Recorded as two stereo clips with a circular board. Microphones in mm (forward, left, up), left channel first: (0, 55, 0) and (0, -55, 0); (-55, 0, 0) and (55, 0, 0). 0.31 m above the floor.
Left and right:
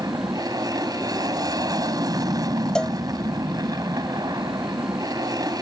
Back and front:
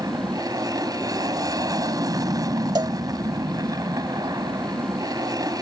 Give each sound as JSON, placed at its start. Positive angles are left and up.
{"t": 0.0, "sound": "an aircraft", "azimuth_deg": -45}
{"t": 2.8, "sound": "a cowbell", "azimuth_deg": 10}